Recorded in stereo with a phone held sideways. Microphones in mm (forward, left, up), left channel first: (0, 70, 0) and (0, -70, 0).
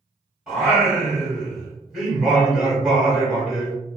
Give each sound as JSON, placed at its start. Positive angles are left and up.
{"t": 0.5, "sound": "singing", "side_deg": 0, "distance_m": 1.2}